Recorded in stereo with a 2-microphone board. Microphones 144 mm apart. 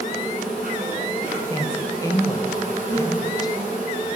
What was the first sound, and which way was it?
An insect, 75° right (ahead or behind).